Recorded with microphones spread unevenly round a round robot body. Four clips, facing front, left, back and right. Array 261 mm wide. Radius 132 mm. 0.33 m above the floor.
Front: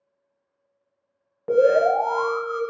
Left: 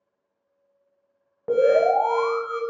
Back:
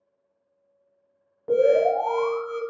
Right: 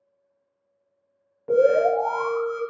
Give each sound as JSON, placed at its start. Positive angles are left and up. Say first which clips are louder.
{"t": 1.5, "sound": "an alarm", "louder": "even, front 2 dB", "azimuth_deg": 60, "distance_m": 1.0}